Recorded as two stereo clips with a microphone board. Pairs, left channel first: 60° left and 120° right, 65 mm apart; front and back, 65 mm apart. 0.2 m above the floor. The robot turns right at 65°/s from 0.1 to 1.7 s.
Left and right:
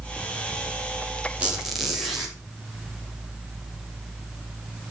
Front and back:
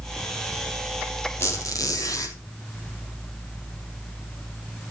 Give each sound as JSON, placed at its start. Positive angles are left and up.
{"t": 1.4, "sound": "a squeak", "azimuth_deg": -50, "distance_m": 3.5}